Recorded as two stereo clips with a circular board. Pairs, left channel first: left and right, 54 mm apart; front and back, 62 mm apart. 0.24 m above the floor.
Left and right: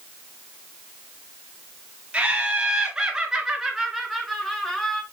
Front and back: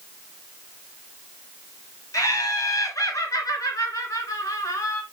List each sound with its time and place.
2.1 s laughter: 20° right, 3.5 m; by 5.0 s 15° left, 2.5 m